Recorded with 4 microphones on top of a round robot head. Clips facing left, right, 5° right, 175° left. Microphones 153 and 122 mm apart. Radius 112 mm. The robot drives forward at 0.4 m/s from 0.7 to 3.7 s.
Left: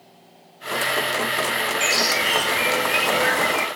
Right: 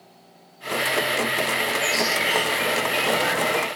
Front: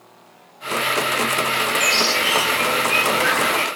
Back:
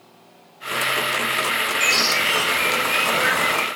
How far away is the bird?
About 3.5 m.